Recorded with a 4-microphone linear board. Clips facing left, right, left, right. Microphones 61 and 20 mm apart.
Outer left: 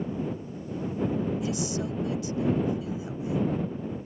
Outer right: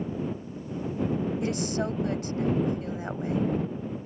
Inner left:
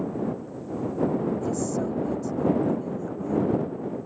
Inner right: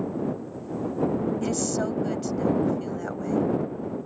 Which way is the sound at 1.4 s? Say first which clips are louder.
Outer right 2 dB, inner right 1 dB; 55° right (ahead or behind).